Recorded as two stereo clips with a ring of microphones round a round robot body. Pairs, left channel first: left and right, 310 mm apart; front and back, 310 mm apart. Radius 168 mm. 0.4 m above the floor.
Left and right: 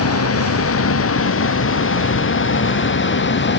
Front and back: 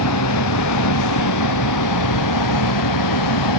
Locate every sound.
0.0 s a vehicle: 45° left; by 3.6 s 35° left